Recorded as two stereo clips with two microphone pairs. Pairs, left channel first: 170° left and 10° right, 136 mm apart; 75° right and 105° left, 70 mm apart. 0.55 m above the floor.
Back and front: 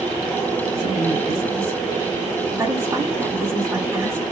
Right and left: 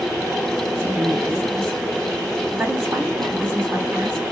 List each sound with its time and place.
0.7 s a woman speaking: 45° left, 1.4 m